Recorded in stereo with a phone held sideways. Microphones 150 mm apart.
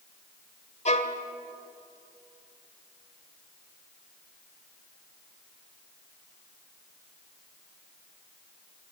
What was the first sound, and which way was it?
A violin, 50° left (ahead or behind).